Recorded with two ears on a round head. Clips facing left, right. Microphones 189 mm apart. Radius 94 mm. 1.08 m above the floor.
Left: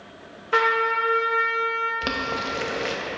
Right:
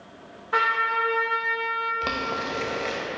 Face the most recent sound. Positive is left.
turn(degrees=10)  # may be behind; listen again after turning